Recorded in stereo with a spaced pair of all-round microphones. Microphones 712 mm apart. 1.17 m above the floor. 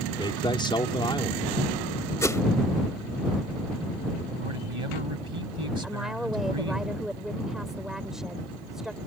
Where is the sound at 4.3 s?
45° right (ahead or behind).